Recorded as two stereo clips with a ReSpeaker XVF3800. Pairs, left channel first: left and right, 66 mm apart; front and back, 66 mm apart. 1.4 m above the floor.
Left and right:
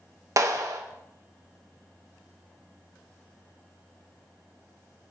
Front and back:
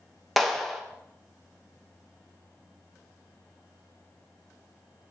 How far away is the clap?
About 0.8 m.